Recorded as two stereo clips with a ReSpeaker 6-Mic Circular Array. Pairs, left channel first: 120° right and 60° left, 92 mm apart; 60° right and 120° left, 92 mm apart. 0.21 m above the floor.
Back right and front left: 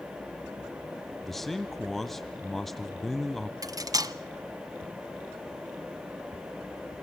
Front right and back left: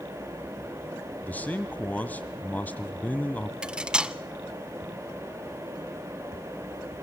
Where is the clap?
I don't hear a clap.